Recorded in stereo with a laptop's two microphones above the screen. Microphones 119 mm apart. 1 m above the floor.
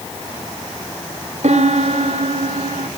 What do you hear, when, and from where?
1.4 s a piano: 70° right (ahead or behind), 1.1 m